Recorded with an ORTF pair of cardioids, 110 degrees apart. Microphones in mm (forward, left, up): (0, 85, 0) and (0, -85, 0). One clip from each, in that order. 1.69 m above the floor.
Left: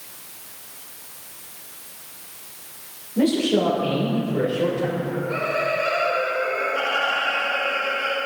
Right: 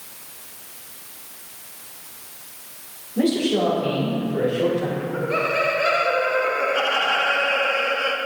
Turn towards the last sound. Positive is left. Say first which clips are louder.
# right 2 dB
turn(degrees=-35)